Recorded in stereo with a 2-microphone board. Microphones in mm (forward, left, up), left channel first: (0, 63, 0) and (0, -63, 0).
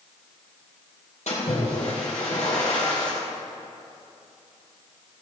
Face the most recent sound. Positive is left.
turn(degrees=75)  # may be behind; listen again after turning